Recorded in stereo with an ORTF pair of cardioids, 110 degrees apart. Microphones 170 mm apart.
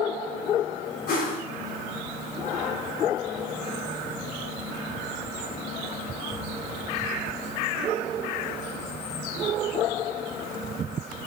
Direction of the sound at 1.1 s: 65° left.